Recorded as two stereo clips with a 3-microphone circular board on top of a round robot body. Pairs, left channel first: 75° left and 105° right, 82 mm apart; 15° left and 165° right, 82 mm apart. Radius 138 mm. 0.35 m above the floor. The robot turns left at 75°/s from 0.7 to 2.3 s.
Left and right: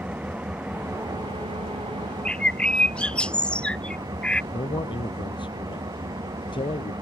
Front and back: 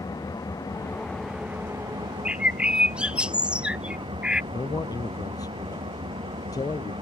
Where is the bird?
140° left; by 4.4 s 135° left.